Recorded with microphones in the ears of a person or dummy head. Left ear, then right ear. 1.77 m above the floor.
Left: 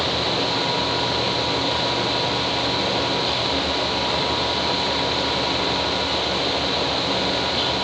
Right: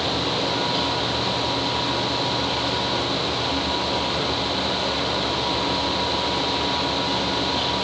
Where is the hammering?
No hammering in this recording.